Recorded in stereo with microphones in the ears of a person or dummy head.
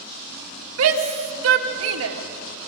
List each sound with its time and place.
0.8 s a shout: 80° right, 2.5 m